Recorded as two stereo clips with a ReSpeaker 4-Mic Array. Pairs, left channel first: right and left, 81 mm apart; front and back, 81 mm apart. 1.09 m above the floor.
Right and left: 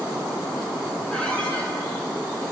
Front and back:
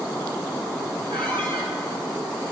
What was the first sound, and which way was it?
A squeak, 165° right.